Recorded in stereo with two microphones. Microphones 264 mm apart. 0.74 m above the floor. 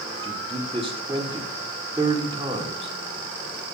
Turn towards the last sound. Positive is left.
turn(degrees=-20)  # may be behind; listen again after turning